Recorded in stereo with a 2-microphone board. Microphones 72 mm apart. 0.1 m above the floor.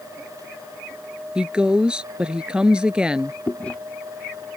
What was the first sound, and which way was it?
A woman speaking, 15° right (ahead or behind).